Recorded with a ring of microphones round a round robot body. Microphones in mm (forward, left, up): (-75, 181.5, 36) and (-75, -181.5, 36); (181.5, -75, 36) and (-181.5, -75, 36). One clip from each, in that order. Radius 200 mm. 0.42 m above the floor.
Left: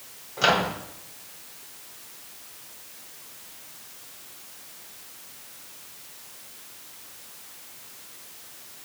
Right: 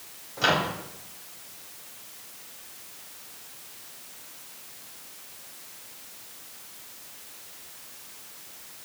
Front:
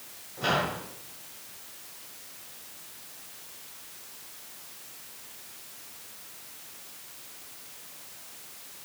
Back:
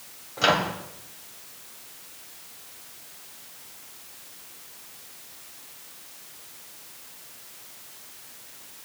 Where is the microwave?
160° left, 2.5 m.